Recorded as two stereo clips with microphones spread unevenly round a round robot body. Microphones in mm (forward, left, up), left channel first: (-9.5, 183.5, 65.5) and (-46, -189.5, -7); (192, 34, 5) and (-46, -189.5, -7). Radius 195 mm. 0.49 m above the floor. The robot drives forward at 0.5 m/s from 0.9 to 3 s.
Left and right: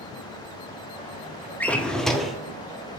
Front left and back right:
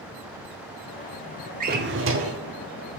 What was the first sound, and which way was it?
A drawer, 175° right.